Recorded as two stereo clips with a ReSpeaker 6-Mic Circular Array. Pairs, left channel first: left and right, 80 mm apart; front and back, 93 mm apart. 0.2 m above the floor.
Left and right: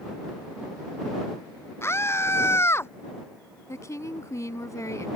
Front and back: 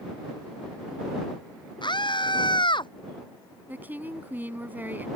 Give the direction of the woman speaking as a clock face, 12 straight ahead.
8 o'clock.